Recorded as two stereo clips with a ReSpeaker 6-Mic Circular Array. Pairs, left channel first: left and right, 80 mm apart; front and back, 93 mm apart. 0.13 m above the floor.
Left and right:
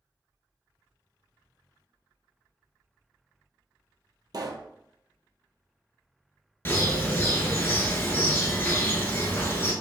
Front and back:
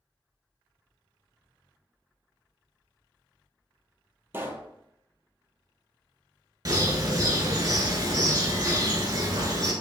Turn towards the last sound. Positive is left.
turn(degrees=145)